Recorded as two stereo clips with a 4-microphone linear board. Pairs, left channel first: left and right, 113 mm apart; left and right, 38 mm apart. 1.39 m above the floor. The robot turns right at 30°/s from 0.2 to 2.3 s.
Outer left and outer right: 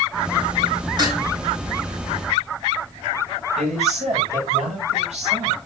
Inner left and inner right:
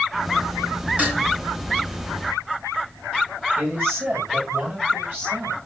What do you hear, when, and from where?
1.0 s dishes clattering: 35° right (ahead or behind), 7 m; by 1.2 s 45° right (ahead or behind), 7 m
3.6 s a woman speaking: 80° right, 7.5 m